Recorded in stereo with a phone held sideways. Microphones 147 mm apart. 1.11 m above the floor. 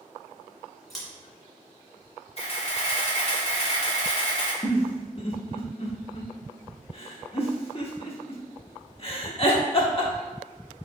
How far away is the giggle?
About 0.8 m.